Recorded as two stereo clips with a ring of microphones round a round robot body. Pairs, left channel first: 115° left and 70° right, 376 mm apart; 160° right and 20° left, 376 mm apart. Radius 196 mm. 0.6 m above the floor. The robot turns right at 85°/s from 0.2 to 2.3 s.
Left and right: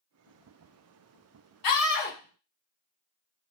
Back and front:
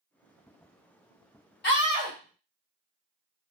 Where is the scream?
140° left, 2 m; by 2.2 s 175° right, 2 m.